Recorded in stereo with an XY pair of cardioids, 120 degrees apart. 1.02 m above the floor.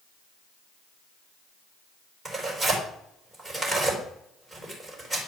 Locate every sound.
2.2 s tearing paper: 5° right, 4 m